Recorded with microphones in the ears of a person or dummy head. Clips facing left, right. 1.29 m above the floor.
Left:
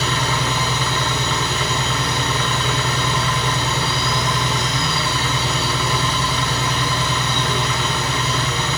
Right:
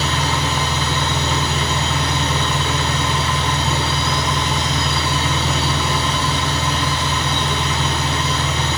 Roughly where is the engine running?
Right.